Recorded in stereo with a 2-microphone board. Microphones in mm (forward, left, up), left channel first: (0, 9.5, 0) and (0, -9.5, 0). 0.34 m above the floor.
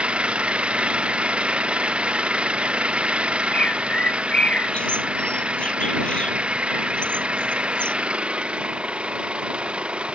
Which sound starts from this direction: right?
An engine running, at 0.0 s.